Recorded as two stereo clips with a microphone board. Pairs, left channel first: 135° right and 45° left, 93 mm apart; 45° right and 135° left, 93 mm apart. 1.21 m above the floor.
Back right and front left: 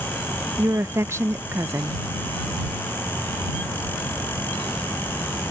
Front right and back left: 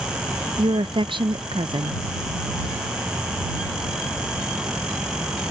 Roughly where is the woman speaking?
Left.